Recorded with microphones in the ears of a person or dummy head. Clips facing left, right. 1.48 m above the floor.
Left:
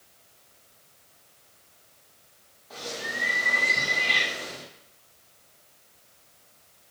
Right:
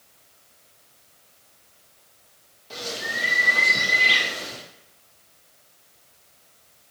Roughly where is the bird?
Right.